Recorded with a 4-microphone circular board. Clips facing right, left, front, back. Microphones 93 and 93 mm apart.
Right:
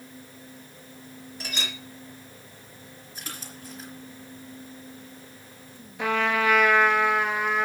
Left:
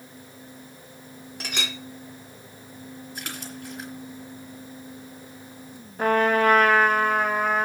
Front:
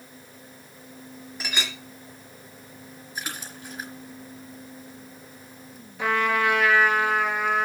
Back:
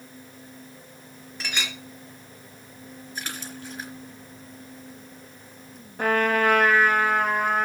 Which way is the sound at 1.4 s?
80° left.